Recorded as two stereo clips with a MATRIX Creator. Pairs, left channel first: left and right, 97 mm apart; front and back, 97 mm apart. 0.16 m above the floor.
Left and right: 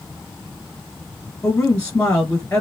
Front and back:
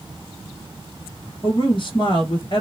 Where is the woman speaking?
15° left, 1.8 m.